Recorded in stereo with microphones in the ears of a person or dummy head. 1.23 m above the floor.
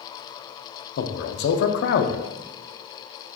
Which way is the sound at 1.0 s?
60° left (ahead or behind).